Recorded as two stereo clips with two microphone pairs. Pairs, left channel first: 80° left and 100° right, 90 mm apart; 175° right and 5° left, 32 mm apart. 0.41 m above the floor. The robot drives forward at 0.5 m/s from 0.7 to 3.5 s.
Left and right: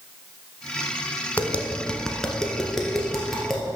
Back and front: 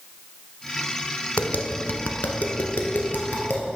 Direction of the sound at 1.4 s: 150° left.